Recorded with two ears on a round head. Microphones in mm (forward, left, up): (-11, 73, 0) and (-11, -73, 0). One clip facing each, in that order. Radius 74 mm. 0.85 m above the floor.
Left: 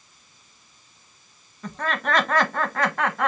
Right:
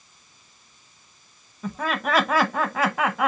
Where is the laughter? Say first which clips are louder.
Right 1 dB; 5° right (ahead or behind), 0.8 m.